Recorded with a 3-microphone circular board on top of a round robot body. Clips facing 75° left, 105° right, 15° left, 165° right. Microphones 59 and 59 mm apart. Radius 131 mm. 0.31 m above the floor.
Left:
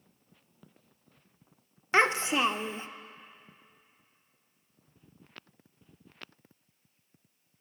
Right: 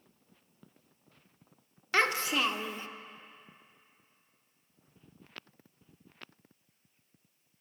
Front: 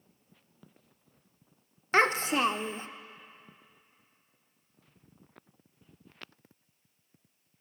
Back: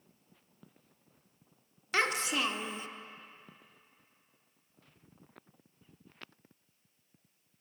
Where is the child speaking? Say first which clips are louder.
Left 3 dB, front 6 dB; 25° left, 0.5 m.